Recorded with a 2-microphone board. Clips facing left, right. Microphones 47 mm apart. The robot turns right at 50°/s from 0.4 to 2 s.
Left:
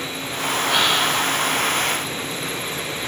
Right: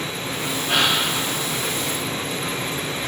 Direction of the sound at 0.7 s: 65° right (ahead or behind).